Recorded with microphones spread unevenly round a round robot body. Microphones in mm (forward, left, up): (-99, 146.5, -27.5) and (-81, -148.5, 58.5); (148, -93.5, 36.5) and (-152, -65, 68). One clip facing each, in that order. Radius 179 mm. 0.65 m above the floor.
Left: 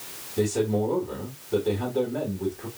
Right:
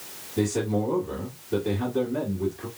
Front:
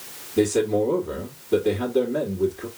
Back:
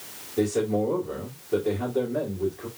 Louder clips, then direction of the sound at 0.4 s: Left 1 dB, front 4 dB; 30° right.